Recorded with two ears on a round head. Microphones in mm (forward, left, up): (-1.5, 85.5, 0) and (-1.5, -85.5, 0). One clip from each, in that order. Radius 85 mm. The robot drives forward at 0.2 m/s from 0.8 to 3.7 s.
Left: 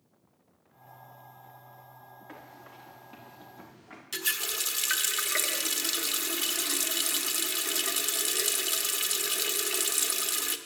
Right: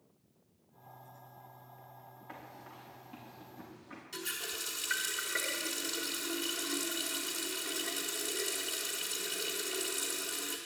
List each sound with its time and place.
2.3 s running footsteps: 10° left (ahead or behind), 6 m; by 4.0 s 20° left (ahead or behind), 4.5 m
4.1 s a running tap: 70° left (ahead or behind), 1.0 m